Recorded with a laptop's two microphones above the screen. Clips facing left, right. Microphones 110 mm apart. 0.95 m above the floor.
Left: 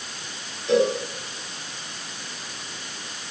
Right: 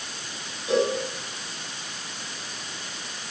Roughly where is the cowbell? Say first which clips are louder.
Left 3 dB; centre.